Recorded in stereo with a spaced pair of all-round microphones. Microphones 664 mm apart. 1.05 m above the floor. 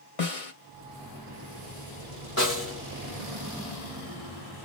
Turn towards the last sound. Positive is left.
turn(degrees=20)  # may be behind; listen again after turning